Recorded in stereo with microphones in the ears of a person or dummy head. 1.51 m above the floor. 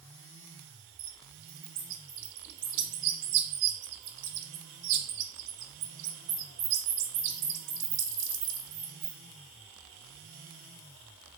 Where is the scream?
I don't hear a scream.